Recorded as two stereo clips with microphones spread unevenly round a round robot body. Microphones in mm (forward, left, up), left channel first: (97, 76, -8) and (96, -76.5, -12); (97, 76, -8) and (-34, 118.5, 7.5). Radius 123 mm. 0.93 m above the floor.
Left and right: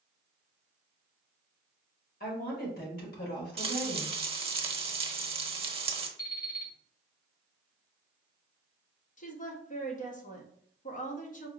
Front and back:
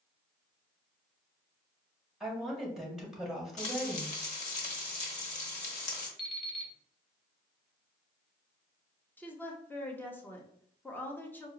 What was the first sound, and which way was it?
A woman speaking, 75° left.